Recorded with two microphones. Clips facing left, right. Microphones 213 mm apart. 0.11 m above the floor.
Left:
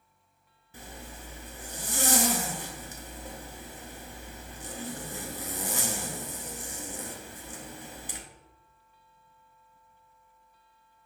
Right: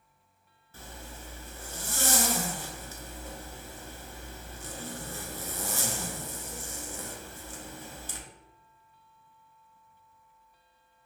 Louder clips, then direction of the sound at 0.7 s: Left 1 dB; 15° left (ahead or behind).